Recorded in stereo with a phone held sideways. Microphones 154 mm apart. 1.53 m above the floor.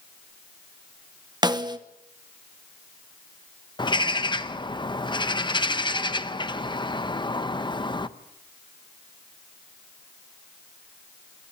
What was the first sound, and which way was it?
A snare drum, 30° right (ahead or behind).